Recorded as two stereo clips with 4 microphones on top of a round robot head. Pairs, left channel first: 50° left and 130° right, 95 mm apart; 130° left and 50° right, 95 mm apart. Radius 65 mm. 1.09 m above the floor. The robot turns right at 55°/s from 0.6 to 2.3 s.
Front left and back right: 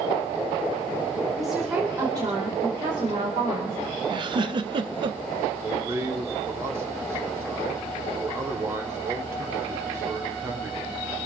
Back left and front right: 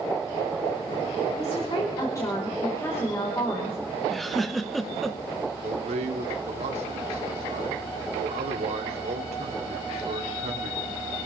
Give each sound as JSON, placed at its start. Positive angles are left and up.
{"t": 1.4, "sound": "a woman speaking", "azimuth_deg": 140, "distance_m": 4.5}
{"t": 4.1, "sound": "a giggle", "azimuth_deg": -145, "distance_m": 1.2}
{"t": 5.6, "sound": "a man speaking", "azimuth_deg": -60, "distance_m": 3.0}